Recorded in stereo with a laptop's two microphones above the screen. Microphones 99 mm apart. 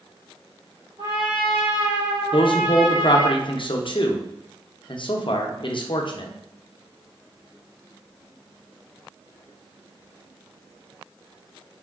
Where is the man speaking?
55° left (ahead or behind), 0.5 m.